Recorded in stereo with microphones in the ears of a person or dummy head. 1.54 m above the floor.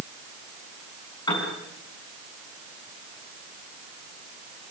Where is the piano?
25° left (ahead or behind), 5.5 m.